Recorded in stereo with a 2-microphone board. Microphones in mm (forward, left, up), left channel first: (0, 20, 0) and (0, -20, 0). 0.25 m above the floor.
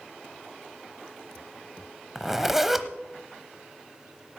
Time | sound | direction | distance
2.1 | a zipper | 10° right (ahead or behind) | 0.8 m